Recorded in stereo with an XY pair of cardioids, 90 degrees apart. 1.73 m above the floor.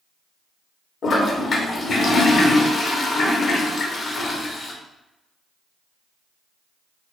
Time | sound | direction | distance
1.0 | a toilet flushing | 55° left | 0.8 m